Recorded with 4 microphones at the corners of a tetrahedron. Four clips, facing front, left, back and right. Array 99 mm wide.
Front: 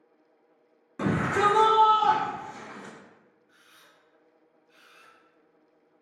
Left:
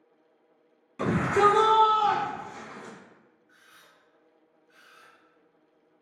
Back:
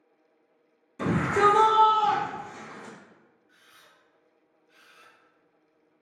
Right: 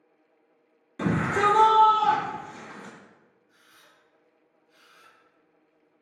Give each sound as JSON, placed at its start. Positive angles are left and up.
{"t": 1.0, "sound": "a shout", "azimuth_deg": -10, "distance_m": 1.6}
{"t": 3.5, "sound": "a camera shutter", "azimuth_deg": 90, "distance_m": 0.8}